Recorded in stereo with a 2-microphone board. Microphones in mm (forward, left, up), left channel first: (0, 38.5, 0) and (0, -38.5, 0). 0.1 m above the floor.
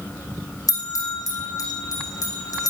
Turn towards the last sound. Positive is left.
turn(degrees=55)  # may be behind; listen again after turning